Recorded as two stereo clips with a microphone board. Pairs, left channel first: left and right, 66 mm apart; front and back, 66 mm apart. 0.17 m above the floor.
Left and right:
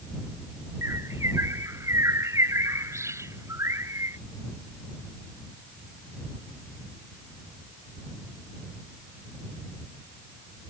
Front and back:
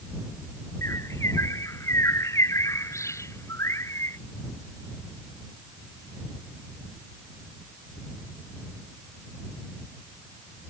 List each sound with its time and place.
0.8 s a bird: 45° right